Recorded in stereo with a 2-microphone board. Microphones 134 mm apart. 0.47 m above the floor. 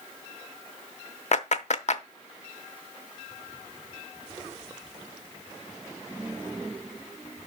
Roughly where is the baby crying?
I don't hear a baby crying.